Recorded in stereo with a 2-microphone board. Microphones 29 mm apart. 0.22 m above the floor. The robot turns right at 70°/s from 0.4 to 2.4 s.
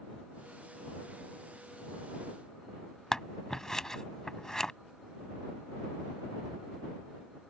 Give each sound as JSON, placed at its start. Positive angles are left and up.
{"t": 3.1, "sound": "scissors", "side_deg": 20}